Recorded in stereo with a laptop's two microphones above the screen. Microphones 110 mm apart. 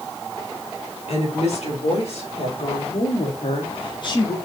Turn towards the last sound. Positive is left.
turn(degrees=35)  # may be behind; listen again after turning